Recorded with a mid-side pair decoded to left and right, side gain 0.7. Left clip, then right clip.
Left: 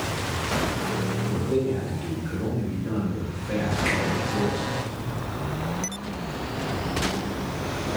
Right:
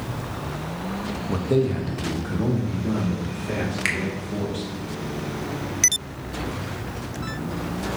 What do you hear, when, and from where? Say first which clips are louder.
1.3 s a man speaking: right 4 dB; 65° right, 0.7 m; by 4.7 s 75° right, 4 m
3.9 s a finger snap: right 2 dB; 60° right, 1.0 m